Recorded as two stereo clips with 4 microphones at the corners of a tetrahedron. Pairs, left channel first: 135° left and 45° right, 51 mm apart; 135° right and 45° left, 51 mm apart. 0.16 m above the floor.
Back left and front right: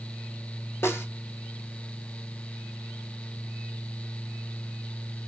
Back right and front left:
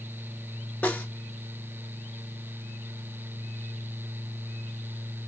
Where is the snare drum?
170° left, 0.7 m.